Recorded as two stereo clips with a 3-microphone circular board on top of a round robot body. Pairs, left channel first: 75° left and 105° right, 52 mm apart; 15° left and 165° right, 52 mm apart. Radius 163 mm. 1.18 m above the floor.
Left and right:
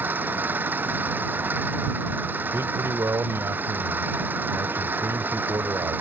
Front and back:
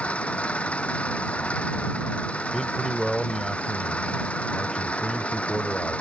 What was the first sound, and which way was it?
An engine running, 55° right.